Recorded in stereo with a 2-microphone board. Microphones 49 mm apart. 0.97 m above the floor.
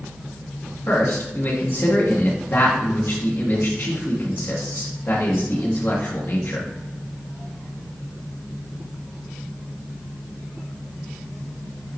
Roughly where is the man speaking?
Left.